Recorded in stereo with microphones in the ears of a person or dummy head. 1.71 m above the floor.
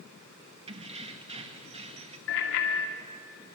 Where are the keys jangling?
35° right (ahead or behind), 1.7 m.